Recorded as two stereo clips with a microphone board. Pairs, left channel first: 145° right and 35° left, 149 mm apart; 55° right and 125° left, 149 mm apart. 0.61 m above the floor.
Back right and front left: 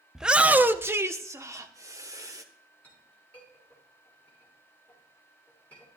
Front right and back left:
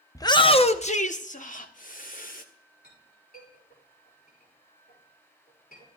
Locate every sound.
0.1 s a shout: 50° right, 0.6 m; by 2.4 s 35° right, 1.6 m
2.8 s a clink: 65° right, 9 m